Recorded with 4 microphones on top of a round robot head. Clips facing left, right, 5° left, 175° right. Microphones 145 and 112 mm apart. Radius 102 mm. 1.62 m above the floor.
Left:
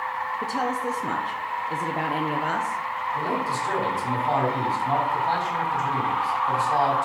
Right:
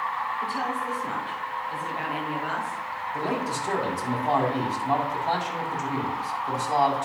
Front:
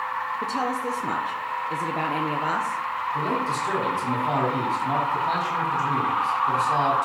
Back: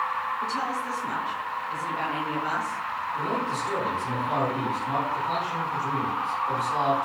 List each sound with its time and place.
0.4 s a woman speaking: 45° left, 1.1 m
3.1 s a man speaking: 20° right, 6 m